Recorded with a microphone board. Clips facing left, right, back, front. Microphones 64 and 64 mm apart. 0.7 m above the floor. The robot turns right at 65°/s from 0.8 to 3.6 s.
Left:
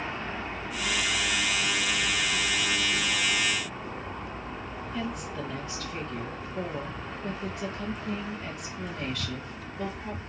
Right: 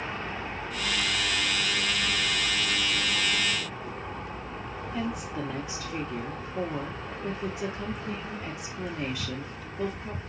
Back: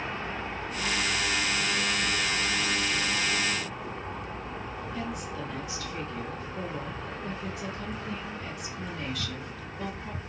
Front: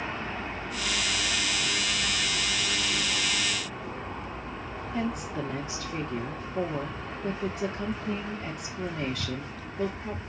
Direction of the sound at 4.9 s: 25° right.